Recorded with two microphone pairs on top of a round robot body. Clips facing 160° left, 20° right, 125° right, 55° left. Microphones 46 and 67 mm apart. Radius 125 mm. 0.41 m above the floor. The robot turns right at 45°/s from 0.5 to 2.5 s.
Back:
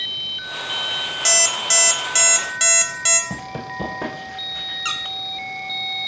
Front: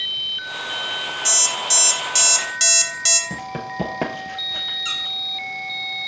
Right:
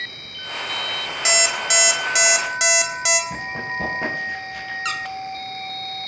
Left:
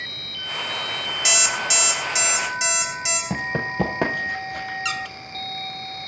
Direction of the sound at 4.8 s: 170° right.